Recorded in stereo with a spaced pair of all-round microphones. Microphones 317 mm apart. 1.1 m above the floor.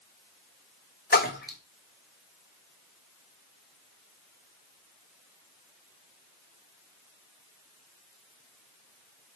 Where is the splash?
30° left (ahead or behind), 0.7 m.